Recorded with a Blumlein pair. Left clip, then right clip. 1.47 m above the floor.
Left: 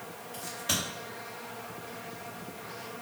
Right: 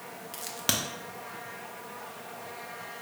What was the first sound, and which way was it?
A crack, 40° right.